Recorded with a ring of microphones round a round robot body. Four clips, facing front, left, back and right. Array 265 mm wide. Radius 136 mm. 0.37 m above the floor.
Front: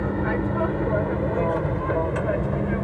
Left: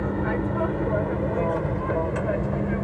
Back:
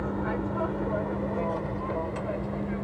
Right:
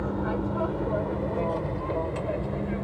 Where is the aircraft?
25° left.